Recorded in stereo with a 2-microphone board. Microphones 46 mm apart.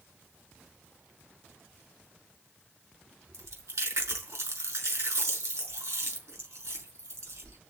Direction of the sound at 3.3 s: 75° right (ahead or behind).